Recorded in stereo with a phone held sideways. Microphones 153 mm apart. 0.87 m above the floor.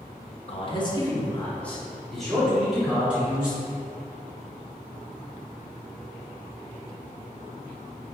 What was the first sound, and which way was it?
A man speaking, 40° left (ahead or behind).